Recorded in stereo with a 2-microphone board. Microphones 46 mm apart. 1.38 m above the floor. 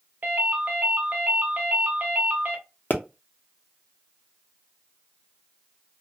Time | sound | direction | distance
0.2 | a ringtone | 40° right (ahead or behind) | 0.8 m
2.9 | a pop | 45° left (ahead or behind) | 0.6 m